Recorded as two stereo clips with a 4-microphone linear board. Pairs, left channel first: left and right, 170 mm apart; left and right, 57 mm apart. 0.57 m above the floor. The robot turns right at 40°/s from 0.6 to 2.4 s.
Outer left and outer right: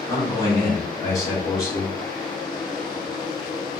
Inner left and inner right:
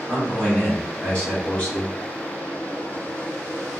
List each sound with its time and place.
0.1 s a man speaking: 20° left (ahead or behind), 1.3 m